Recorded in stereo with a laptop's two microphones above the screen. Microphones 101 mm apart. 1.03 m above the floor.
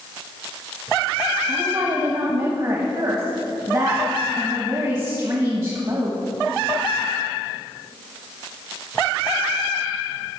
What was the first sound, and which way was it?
A woman speaking, 45° right (ahead or behind).